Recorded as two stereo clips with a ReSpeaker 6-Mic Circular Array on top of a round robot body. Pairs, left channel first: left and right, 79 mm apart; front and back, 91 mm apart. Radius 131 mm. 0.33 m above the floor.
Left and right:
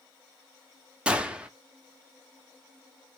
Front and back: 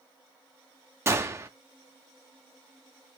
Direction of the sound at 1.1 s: 155° right.